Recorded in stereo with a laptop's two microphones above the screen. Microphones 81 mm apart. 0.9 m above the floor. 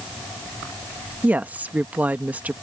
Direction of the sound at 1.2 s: 20° right (ahead or behind).